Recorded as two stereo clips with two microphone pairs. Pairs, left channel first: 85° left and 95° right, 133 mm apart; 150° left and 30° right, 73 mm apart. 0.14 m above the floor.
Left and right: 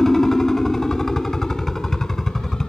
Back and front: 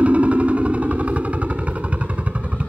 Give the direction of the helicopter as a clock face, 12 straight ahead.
12 o'clock.